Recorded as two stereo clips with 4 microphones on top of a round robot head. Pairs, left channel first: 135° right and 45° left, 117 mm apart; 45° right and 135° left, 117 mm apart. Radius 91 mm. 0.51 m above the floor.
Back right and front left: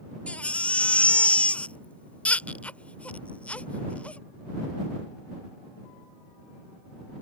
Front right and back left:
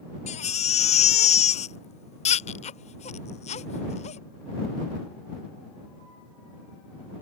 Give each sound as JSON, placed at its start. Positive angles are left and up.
{"t": 0.3, "sound": "a baby crying", "azimuth_deg": -55}